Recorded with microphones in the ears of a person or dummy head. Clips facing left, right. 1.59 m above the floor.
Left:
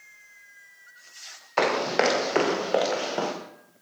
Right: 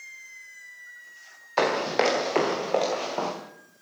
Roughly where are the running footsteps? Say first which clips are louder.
Even; centre.